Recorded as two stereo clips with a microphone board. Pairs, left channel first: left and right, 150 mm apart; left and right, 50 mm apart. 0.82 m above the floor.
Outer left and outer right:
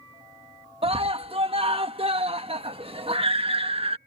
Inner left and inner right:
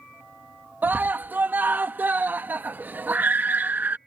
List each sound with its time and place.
0.8 s a scream: 40° right (ahead or behind)